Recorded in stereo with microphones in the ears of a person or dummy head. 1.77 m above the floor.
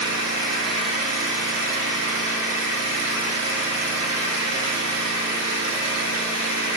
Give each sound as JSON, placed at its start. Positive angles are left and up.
{"t": 0.0, "sound": "an engine running", "side_deg": -65, "distance_m": 2.0}